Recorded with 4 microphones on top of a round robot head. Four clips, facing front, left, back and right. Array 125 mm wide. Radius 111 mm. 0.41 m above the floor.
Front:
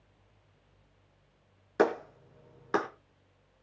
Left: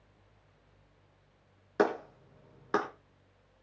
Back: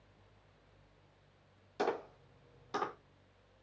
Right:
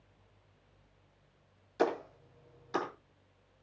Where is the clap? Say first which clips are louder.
Left 3 dB, front 9 dB; 50° left, 5 m.